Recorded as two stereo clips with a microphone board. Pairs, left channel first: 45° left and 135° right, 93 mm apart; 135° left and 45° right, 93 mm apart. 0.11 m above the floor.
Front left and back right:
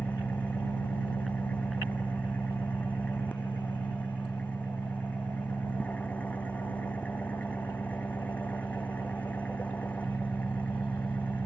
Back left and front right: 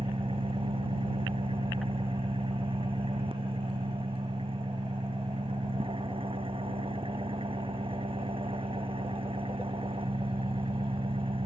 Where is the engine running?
30° right.